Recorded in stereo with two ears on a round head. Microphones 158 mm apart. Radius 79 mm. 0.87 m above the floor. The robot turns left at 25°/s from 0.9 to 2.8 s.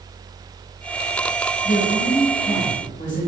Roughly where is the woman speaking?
Left.